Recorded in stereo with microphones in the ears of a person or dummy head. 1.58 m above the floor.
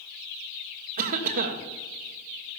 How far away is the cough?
About 1.4 m.